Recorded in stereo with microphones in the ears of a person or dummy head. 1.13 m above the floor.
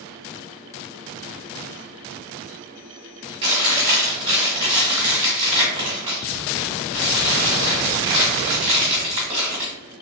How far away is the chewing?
About 1.3 m.